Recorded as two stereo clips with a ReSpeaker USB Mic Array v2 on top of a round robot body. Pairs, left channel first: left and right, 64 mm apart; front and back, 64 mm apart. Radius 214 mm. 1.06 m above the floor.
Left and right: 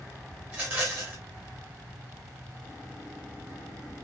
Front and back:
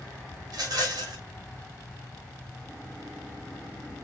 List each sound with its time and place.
0.5 s a rattle: 160° right, 1.3 m